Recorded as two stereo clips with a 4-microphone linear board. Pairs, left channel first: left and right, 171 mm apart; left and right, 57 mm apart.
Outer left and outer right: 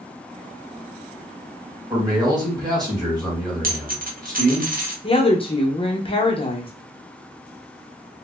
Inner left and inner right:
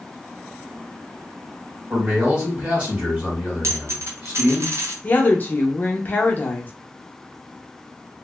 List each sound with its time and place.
1.9 s a man speaking: 25° right (ahead or behind), 1.4 m
3.6 s a dropped coin: 55° right (ahead or behind), 0.7 m
5.0 s a woman speaking: 35° left (ahead or behind), 0.7 m